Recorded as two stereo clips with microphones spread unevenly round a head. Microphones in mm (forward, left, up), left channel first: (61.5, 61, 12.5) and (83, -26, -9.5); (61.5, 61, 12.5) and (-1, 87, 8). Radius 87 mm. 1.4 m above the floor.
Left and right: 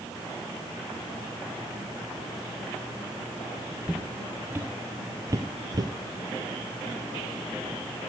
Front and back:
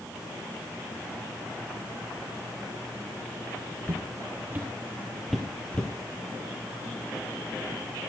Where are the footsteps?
165° right, 1.8 m; by 5.9 s 70° right, 1.5 m.